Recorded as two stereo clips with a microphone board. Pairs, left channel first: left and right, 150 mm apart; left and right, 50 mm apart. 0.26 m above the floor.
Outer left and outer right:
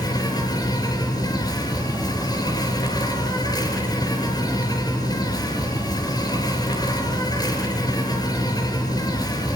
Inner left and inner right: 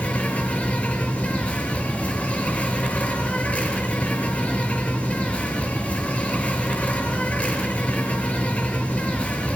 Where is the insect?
25° left (ahead or behind), 5 m.